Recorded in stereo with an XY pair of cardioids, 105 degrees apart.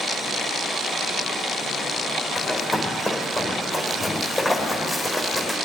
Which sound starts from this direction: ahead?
Running footsteps, at 2.4 s.